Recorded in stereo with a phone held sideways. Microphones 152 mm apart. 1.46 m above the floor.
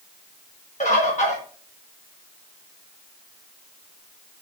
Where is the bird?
50° left (ahead or behind), 1.5 m.